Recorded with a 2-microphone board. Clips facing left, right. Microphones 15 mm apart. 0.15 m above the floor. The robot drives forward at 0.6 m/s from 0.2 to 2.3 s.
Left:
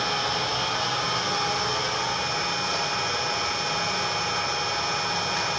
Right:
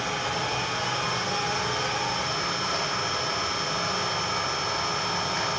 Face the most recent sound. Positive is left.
turn(degrees=35)  # may be behind; listen again after turning